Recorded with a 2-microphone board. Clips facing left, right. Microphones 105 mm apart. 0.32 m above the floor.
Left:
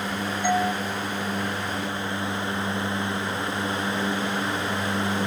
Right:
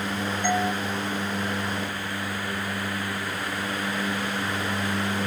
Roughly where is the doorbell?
Centre.